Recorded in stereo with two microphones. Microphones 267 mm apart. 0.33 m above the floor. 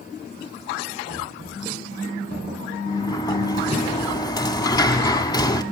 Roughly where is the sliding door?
Centre.